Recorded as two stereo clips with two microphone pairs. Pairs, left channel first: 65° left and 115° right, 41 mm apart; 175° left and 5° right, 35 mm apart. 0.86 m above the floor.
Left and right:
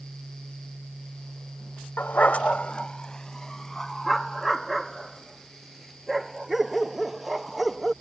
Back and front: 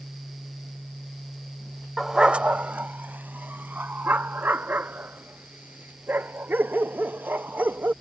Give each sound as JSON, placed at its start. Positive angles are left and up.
{"t": 2.0, "sound": "a dog barking", "azimuth_deg": 70}